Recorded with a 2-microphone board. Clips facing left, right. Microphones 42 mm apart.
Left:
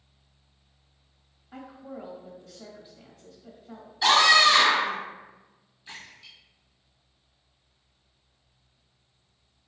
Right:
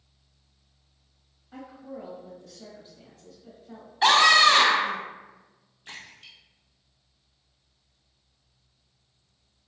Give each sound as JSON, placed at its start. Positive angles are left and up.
{"t": 1.5, "sound": "a woman speaking", "side_deg": 15, "distance_m": 0.9}
{"t": 4.0, "sound": "a scream", "side_deg": -45, "distance_m": 1.2}
{"t": 5.8, "sound": "a splash", "side_deg": -65, "distance_m": 1.4}